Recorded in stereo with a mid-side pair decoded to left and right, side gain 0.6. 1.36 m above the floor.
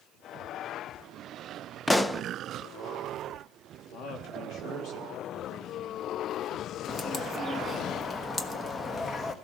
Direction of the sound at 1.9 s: 5° left.